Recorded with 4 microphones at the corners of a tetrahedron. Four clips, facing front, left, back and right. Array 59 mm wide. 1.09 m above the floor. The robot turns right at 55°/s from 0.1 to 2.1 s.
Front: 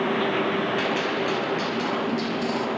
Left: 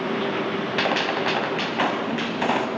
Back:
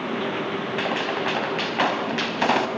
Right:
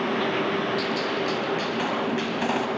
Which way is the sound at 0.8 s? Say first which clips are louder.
Left 3 dB, even; 95° left.